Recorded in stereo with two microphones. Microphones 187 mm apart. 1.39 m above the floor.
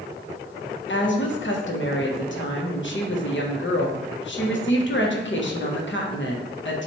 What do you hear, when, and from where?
0.9 s a woman speaking: 65° left (ahead or behind), 1.0 m